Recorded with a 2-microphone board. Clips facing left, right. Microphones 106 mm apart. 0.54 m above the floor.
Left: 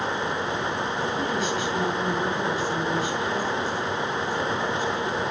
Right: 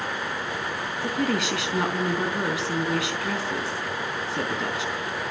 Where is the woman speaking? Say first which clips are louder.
Right 4 dB; 80° right, 5 m.